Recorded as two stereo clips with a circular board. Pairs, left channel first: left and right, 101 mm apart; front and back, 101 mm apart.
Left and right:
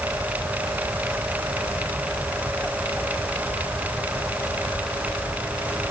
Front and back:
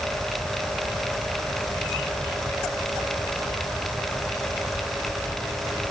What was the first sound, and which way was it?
Only background noise.